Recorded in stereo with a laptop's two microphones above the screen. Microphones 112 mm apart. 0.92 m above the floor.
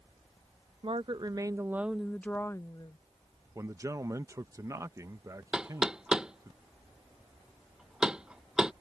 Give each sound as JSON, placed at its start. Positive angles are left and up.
{"t": 0.8, "sound": "a woman speaking", "side_deg": -50}
{"t": 3.5, "sound": "a man speaking", "side_deg": -25}
{"t": 5.5, "sound": "knocking", "side_deg": -5}